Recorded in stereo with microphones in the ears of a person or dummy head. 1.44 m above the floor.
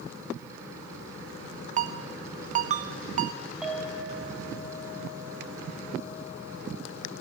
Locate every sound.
1.8 s a ringtone: 45° right (ahead or behind), 0.9 m
3.6 s a clink: centre (ahead or behind), 4.5 m